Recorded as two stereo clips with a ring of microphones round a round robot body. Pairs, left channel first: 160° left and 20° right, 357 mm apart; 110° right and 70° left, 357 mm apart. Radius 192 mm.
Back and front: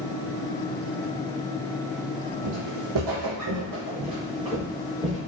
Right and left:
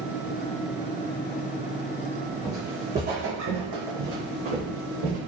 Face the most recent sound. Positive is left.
turn(degrees=65)